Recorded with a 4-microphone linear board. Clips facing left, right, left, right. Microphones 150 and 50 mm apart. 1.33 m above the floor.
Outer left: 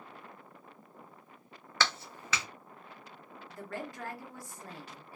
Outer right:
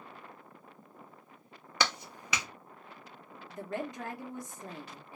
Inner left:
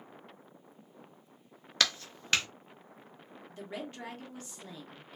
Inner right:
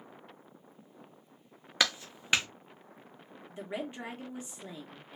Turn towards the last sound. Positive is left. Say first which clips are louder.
# outer right 4 dB, inner right 3 dB
turn(degrees=-20)  # may be behind; listen again after turning